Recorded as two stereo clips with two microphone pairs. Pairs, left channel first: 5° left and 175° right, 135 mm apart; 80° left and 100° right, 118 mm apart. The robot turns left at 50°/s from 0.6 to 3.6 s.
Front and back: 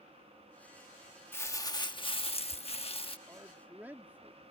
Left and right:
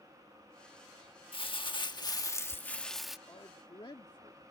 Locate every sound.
1.3 s crumpling: 75° left; by 3.2 s 20° right
3.3 s a man speaking: 130° left; by 4.4 s 110° left